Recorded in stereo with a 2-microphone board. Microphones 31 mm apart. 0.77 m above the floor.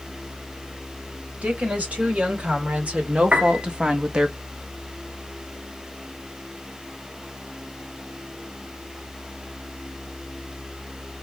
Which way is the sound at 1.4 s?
50° right (ahead or behind).